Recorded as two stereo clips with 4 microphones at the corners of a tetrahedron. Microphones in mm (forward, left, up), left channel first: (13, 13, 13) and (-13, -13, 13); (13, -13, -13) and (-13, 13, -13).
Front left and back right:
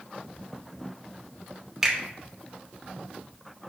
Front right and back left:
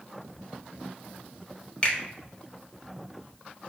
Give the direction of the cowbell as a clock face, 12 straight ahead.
No cowbell in this recording.